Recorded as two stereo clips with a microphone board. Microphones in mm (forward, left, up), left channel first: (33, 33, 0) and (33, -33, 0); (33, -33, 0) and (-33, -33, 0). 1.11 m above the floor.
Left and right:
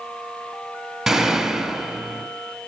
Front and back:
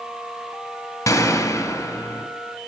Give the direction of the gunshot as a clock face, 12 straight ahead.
12 o'clock.